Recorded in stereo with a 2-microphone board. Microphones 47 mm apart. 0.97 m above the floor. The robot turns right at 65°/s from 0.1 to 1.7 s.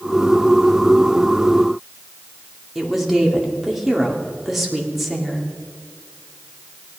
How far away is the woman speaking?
About 2 m.